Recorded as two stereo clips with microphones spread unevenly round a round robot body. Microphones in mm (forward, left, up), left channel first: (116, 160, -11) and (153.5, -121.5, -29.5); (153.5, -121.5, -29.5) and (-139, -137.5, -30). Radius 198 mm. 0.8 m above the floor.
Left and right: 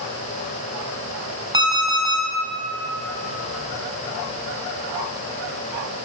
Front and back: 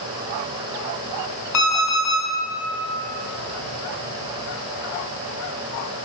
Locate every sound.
1.5 s an alarm clock: 5° right, 2.5 m